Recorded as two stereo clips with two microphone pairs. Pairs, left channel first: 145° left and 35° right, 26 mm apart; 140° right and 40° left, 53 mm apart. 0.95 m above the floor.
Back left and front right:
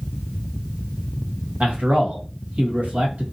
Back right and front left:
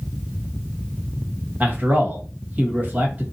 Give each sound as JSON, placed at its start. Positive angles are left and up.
{"t": 1.6, "sound": "a man speaking", "azimuth_deg": -15, "distance_m": 1.3}